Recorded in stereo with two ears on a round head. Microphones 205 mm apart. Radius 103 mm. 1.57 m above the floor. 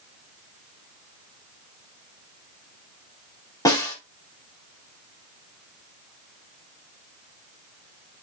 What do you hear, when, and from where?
3.6 s a snare drum: 15° left (ahead or behind), 5 m